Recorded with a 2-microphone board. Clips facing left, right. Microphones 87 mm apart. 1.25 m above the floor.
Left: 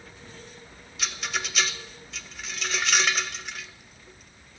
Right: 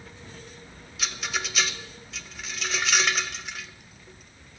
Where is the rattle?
Centre (ahead or behind), 0.7 m.